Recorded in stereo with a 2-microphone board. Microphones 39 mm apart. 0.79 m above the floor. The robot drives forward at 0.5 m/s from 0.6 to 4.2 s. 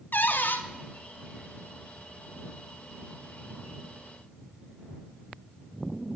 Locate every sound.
0.1 s a cupboard door: 55° left (ahead or behind), 0.5 m